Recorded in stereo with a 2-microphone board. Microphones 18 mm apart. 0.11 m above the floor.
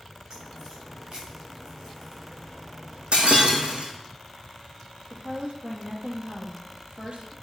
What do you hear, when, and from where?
0.3 s a crack: 35° right (ahead or behind), 5 m
3.1 s breaking glass: 65° right (ahead or behind), 2 m
5.1 s a woman speaking: 55° right (ahead or behind), 3 m